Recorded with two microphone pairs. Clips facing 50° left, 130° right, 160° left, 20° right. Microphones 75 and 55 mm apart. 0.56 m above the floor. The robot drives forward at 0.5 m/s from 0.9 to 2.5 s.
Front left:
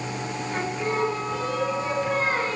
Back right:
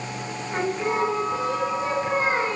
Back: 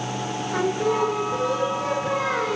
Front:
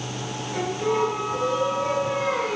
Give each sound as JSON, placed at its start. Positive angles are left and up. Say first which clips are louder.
{"t": 0.5, "sound": "singing", "louder": "back right 3 dB, back 2 dB", "azimuth_deg": 155, "distance_m": 5.5}